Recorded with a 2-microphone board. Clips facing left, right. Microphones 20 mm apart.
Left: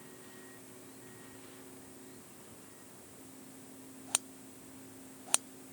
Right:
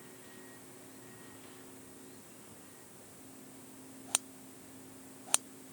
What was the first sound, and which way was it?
Only background noise.